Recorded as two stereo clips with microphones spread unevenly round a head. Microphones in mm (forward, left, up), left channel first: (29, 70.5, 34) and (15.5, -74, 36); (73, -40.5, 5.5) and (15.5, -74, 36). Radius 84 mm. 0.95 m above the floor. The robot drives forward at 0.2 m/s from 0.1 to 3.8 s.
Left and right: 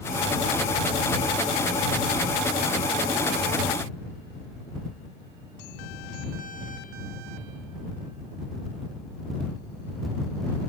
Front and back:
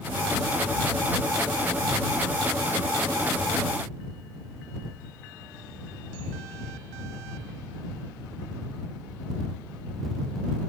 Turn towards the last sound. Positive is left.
No sound to turn to.